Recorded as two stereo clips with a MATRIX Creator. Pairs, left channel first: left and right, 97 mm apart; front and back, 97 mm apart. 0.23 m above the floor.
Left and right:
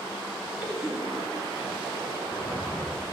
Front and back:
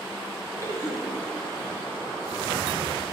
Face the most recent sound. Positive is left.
turn(degrees=-170)